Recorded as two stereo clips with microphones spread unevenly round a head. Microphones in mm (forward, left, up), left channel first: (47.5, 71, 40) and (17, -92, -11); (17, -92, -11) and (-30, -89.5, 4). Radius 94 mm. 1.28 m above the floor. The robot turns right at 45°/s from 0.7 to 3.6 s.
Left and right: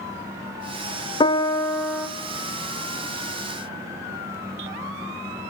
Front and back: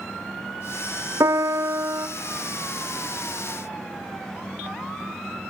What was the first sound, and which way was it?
A piano, 155° left.